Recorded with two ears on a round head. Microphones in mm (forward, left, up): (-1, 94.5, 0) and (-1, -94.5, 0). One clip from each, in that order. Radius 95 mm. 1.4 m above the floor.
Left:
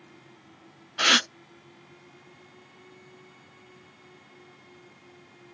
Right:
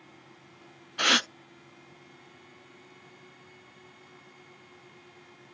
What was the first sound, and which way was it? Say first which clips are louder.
A gasp: left 3 dB; centre (ahead or behind).